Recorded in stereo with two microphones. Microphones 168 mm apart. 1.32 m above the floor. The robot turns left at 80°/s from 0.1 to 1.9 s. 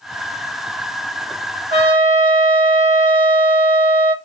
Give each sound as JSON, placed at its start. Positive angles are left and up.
{"t": 1.7, "sound": "a trumpet", "side_deg": -70, "distance_m": 2.5}